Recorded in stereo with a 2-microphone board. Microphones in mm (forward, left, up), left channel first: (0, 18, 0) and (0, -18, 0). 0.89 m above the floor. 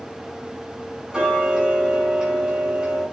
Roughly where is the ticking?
Right.